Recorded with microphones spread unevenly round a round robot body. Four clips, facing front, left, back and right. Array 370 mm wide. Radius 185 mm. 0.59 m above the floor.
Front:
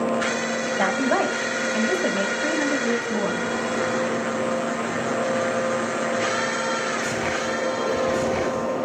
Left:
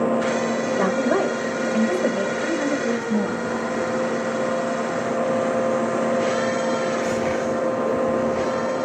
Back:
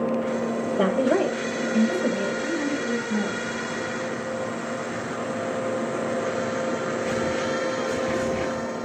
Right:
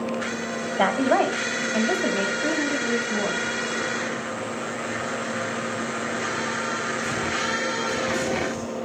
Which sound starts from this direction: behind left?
A woman speaking, at 0.8 s.